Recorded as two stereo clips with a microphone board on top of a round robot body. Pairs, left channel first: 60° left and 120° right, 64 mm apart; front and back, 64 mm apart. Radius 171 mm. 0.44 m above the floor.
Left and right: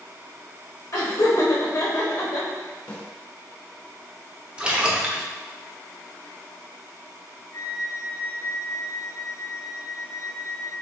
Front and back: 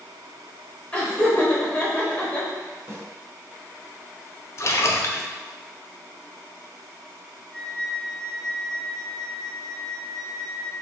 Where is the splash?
45° right, 0.6 m.